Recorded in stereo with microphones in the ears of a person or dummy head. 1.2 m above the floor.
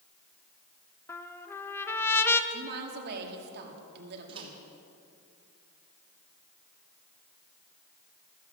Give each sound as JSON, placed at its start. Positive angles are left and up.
{"t": 1.1, "sound": "a trumpet", "side_deg": 10, "distance_m": 0.7}
{"t": 2.5, "sound": "a woman speaking", "side_deg": -55, "distance_m": 2.5}
{"t": 4.3, "sound": "a microwave", "side_deg": -30, "distance_m": 2.5}